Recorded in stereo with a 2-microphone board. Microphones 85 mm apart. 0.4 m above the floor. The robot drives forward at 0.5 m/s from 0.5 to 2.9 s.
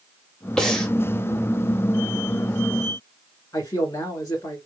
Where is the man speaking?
30° left (ahead or behind), 1.8 m.